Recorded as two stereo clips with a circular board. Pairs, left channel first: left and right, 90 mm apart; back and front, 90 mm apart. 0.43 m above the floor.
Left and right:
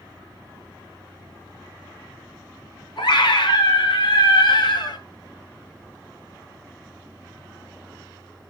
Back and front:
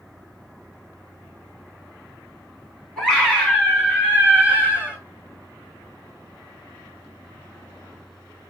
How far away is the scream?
About 4 m.